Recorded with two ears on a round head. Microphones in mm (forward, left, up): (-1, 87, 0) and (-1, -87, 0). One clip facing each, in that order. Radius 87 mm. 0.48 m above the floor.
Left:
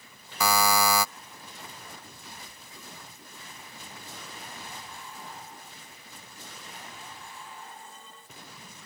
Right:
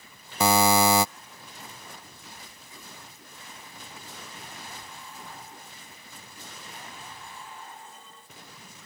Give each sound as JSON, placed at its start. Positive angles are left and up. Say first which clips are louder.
{"t": 0.4, "sound": "a buzzer", "louder": "right 4 dB", "side_deg": -20}